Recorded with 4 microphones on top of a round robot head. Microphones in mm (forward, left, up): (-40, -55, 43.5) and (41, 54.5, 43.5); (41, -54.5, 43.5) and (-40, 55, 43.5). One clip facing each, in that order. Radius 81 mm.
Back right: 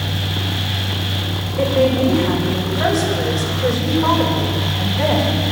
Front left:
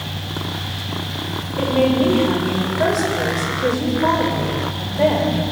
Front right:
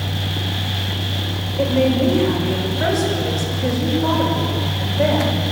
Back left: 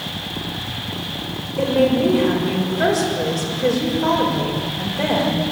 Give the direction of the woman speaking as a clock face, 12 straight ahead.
8 o'clock.